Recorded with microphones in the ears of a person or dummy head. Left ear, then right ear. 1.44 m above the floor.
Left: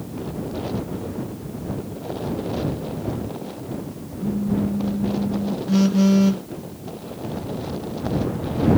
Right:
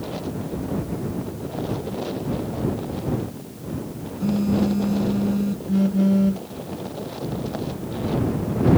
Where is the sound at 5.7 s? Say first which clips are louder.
Left 3 dB; 35° left (ahead or behind).